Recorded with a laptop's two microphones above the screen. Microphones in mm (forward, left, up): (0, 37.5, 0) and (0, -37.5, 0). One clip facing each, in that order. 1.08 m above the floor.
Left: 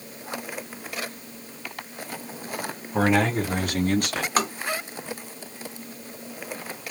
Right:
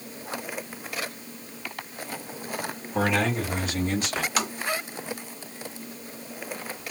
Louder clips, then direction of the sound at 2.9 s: Left 3 dB; 35° left (ahead or behind).